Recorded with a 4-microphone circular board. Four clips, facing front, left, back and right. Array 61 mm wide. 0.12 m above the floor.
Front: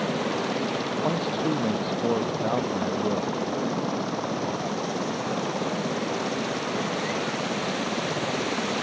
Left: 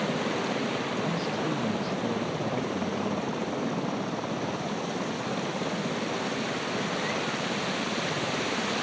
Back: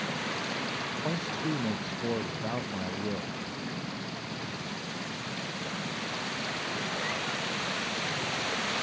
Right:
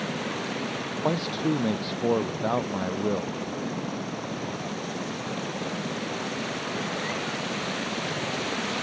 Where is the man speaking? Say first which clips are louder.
Right 3 dB, front 7 dB; 60° right.